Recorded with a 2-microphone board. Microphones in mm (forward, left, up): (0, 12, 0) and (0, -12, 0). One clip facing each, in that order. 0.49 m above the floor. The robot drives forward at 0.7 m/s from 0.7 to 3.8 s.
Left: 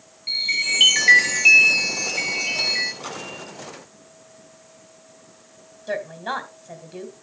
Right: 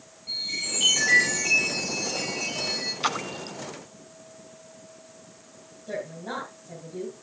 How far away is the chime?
About 4.5 m.